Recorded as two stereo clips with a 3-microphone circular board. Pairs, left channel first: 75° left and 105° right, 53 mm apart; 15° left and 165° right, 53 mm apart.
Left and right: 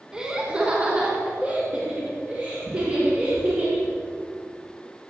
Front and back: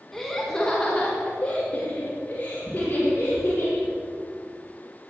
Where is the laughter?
65° right, 1.3 m; by 3.9 s 40° right, 3.5 m.